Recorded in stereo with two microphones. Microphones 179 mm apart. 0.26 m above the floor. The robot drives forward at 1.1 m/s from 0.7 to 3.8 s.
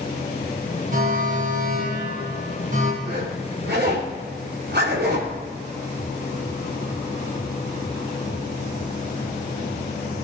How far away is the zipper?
About 5.5 m.